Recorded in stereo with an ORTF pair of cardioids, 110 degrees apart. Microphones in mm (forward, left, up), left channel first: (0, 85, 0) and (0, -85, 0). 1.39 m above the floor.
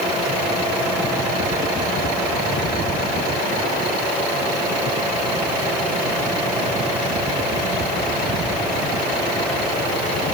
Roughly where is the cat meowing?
No cat meowing in this recording.